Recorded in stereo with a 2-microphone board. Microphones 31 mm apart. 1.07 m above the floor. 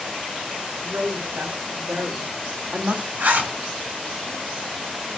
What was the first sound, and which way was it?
A woman speaking, 70° right (ahead or behind).